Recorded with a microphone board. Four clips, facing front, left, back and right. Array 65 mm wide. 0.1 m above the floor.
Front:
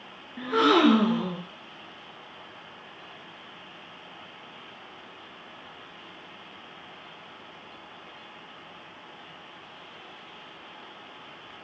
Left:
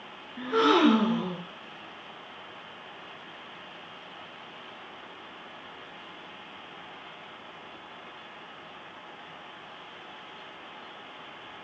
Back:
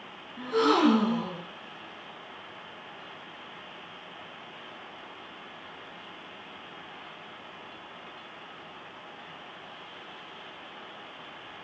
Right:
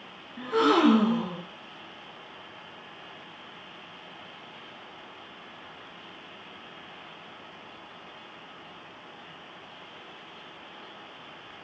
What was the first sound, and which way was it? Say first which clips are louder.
A gasp: even, front 3 dB; 20° left.